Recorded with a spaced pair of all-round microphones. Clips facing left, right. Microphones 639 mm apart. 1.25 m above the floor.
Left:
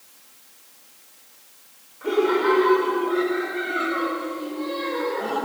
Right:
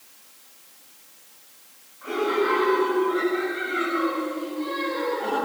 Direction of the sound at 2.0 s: 80° left.